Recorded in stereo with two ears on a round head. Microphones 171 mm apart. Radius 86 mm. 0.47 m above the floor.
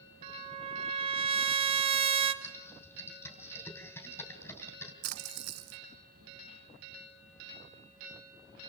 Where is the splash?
60° right (ahead or behind), 2 m.